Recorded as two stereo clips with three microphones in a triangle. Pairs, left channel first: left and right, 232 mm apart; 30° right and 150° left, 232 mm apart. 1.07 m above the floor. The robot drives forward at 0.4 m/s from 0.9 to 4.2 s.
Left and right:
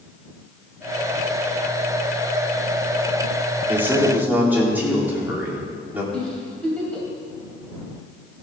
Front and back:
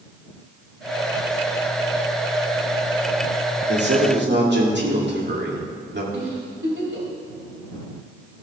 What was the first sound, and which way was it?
A man speaking, 170° right.